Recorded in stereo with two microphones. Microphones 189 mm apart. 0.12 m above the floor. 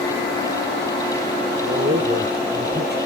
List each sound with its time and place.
1.6 s a man speaking: 55° right (ahead or behind), 3 m; by 3.0 s 60° right (ahead or behind), 3.5 m